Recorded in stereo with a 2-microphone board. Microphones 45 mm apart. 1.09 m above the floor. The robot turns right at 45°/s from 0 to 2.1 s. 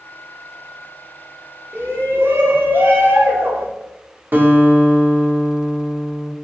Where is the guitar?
45° right (ahead or behind), 1.1 m.